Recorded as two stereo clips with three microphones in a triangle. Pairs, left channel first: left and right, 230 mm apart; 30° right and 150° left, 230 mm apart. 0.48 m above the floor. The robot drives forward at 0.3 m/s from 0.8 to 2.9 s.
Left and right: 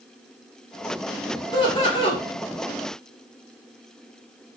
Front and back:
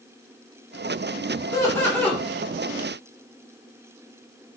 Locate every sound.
1.5 s laughter: 35° left, 0.9 m; by 2.2 s 55° left, 0.8 m